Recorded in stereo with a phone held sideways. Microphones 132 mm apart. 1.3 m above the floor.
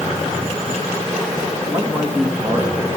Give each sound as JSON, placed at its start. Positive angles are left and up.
{"t": 1.7, "sound": "a man speaking", "side_deg": -25, "distance_m": 2.5}